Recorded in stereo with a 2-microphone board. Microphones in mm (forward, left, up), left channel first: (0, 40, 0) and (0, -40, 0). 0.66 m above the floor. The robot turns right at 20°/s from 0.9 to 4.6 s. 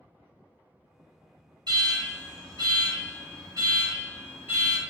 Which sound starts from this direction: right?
An alarm, at 1.7 s.